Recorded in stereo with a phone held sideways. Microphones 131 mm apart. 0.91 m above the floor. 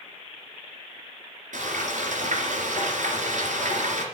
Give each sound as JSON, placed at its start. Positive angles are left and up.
{"t": 1.5, "sound": "frying", "side_deg": -75, "distance_m": 2.5}